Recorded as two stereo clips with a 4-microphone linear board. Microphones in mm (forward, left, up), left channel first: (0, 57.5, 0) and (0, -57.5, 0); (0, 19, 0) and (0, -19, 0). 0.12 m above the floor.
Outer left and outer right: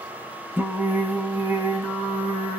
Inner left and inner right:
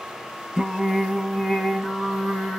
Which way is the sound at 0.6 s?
20° right (ahead or behind).